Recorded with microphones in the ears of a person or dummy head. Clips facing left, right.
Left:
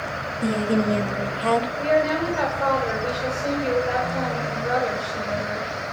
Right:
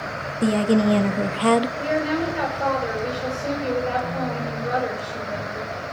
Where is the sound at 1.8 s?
25° right (ahead or behind), 6.5 m.